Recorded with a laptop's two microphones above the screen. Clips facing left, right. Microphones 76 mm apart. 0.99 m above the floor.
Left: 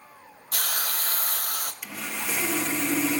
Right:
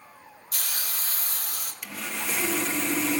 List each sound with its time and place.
0.5 s a hiss: 60° left (ahead or behind), 1.1 m
1.8 s sawing: 5° left (ahead or behind), 1.0 m